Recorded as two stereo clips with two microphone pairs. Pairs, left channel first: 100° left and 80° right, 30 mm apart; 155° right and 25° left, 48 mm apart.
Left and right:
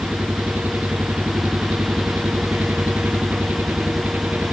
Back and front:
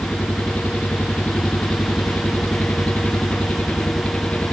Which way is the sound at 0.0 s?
95° right.